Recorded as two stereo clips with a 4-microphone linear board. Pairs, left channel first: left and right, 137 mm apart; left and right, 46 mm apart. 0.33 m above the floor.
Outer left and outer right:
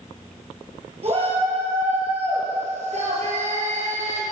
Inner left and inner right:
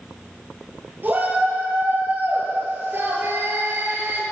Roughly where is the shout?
Right.